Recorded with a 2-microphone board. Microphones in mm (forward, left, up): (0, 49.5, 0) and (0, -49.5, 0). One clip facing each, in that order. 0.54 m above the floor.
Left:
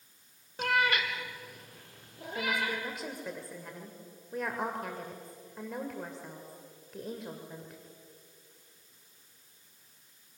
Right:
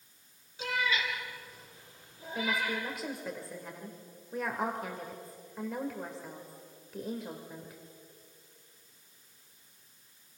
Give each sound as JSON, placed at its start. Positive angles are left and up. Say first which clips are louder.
{"t": 0.6, "sound": "a cat meowing", "louder": "left 4 dB", "side_deg": 60, "distance_m": 1.3}
{"t": 2.4, "sound": "a woman speaking", "louder": "even", "side_deg": 0, "distance_m": 1.9}